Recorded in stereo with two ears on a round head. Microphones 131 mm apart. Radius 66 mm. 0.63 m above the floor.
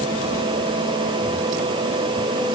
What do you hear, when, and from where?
Only background noise.